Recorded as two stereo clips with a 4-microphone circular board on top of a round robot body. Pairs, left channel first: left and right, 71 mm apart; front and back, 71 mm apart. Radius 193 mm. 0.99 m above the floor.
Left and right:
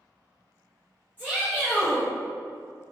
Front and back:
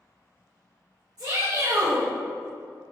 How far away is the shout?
About 1.6 m.